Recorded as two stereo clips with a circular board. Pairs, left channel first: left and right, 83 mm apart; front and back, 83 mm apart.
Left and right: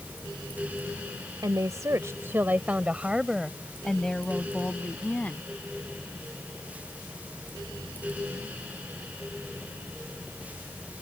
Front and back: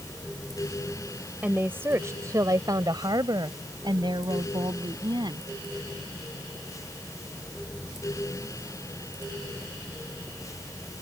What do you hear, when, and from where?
1.4 s a woman speaking: 110° right; by 5.5 s 160° left